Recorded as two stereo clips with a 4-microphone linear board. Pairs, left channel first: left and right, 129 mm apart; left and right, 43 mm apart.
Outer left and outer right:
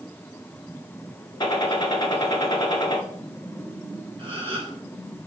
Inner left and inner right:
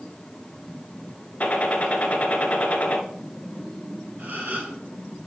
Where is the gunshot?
35° left (ahead or behind), 1.5 m.